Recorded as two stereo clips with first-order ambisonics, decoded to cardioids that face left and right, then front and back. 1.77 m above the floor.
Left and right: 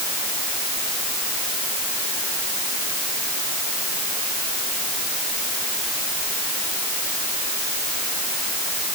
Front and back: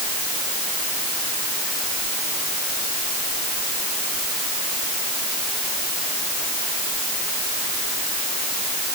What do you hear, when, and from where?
Only background noise.